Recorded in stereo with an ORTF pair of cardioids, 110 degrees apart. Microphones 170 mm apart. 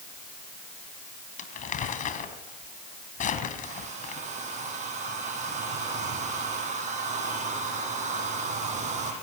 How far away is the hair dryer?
About 8.5 m.